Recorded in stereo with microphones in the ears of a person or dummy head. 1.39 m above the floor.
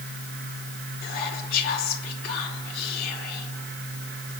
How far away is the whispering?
About 3 m.